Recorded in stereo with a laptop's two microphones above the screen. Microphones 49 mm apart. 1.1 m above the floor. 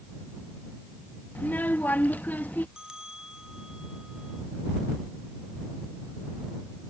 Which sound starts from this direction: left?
A child speaking, at 1.4 s.